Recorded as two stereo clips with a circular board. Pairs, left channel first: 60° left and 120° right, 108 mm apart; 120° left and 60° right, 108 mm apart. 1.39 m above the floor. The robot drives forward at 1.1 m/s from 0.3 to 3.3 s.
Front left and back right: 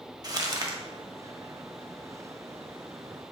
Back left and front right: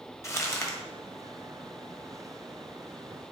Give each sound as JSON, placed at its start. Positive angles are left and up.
{"t": 0.2, "sound": "crumpling", "azimuth_deg": -175, "distance_m": 1.1}